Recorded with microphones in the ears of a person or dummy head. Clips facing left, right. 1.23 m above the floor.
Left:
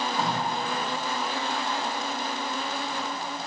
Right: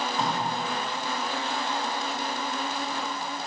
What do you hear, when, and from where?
0.2 s tape being pulled: 10° left (ahead or behind), 1.5 m